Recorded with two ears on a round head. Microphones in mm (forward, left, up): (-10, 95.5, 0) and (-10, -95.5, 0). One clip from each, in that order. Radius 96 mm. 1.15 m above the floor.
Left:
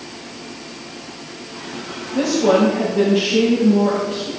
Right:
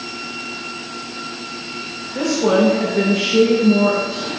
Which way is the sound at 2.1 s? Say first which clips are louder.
Left 1 dB; 35° right (ahead or behind).